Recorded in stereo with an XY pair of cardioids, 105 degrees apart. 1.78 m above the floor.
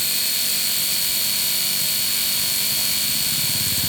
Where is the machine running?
Straight ahead, 0.8 m.